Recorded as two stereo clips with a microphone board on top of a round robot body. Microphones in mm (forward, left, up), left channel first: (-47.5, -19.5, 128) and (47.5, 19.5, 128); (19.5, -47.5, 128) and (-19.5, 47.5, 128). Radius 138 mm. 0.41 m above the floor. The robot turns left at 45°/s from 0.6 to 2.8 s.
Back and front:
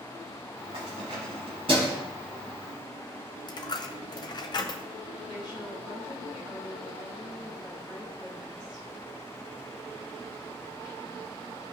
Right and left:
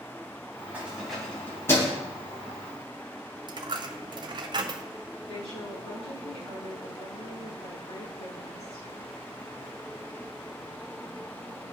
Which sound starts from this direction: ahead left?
Keys jangling, at 0.7 s.